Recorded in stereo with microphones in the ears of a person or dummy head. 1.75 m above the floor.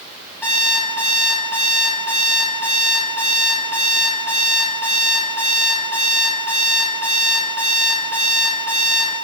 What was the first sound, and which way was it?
An alarm clock, 5° left (ahead or behind).